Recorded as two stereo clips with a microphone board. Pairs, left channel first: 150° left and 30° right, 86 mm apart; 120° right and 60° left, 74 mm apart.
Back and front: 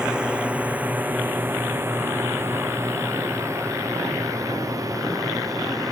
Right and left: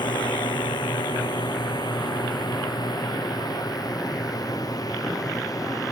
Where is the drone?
110° right; by 5.9 s 80° right.